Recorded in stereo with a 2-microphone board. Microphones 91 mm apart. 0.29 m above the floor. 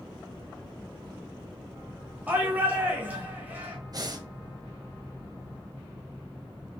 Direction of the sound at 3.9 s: 45° right (ahead or behind).